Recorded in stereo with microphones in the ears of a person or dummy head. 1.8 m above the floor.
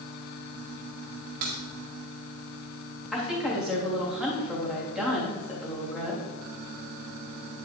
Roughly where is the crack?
Right.